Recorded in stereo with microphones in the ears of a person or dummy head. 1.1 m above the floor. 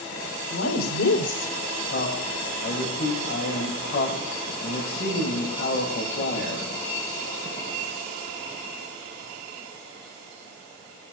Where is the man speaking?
45° left (ahead or behind), 6 m.